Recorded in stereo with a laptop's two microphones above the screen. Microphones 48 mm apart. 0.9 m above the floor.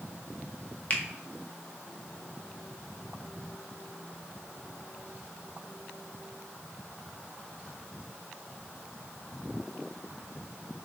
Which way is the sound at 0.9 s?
30° left (ahead or behind).